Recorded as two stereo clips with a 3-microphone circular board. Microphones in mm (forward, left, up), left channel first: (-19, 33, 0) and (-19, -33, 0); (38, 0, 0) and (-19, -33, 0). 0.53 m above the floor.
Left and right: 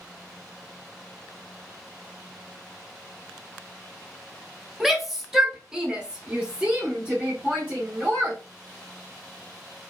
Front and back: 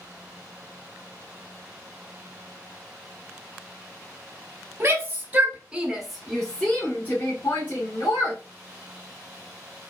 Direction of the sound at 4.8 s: 175° right.